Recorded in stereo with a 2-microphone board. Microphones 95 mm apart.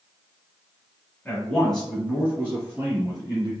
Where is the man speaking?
20° left (ahead or behind), 1.3 m; by 3.5 s 40° right (ahead or behind), 1.6 m.